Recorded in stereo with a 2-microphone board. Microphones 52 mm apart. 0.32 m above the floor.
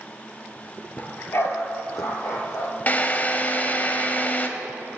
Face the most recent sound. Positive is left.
turn(degrees=30)  # may be behind; listen again after turning